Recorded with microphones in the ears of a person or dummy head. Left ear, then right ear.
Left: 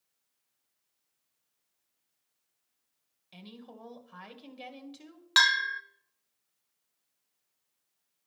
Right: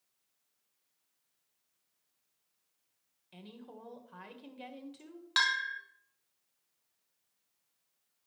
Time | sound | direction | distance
3.3 | a woman speaking | 15° left (ahead or behind) | 1.6 m
5.4 | a bell | 20° left (ahead or behind) | 0.5 m